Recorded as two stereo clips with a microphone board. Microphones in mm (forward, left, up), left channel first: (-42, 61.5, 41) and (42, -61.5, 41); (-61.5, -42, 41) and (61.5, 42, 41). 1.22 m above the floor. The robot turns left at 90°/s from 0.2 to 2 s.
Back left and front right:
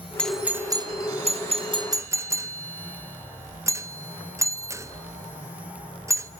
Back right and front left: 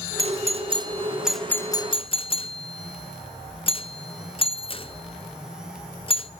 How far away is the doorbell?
About 0.6 m.